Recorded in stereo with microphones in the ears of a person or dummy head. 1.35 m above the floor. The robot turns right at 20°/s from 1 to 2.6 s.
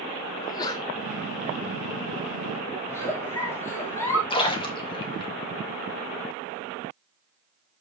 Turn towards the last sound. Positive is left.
turn(degrees=25)  # may be behind; listen again after turning